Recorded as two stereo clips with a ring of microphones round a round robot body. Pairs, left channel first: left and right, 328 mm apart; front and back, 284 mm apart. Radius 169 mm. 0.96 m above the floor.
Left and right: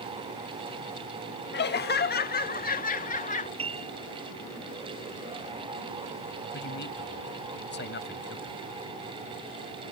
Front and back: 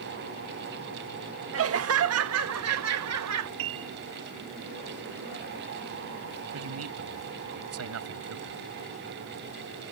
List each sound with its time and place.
1.5 s laughter: 145° left; by 3.5 s 155° left
3.6 s a piano: 165° right
6.5 s a man speaking: 150° left